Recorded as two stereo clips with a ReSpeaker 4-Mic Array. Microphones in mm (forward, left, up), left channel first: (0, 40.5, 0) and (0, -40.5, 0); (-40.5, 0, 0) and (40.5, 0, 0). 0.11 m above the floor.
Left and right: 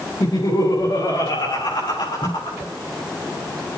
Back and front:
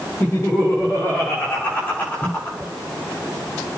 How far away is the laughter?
About 7 m.